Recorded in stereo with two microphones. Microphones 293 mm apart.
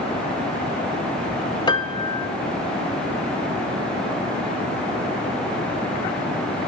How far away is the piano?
About 0.9 m.